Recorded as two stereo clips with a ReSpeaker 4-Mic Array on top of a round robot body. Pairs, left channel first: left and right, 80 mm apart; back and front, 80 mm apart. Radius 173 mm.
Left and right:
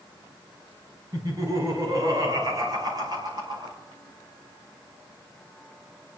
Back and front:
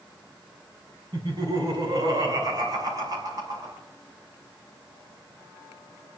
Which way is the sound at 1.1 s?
40° right.